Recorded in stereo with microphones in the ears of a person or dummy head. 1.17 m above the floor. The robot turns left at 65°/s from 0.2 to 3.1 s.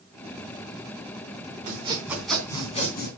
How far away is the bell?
I don't hear a bell.